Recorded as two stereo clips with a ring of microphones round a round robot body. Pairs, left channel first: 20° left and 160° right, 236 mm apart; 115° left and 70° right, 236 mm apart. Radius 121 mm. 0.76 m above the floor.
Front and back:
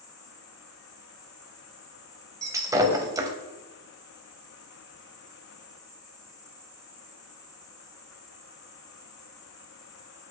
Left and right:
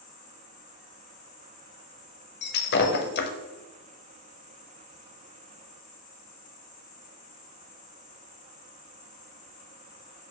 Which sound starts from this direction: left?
An insect, at 0.0 s.